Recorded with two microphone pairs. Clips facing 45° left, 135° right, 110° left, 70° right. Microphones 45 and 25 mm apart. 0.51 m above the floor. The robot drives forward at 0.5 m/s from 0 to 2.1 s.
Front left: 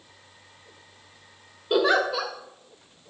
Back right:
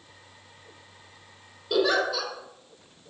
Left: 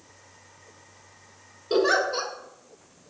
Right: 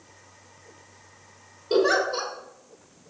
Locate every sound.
1.7 s a giggle: 30° left, 1.0 m; by 2.3 s 45° left, 1.0 m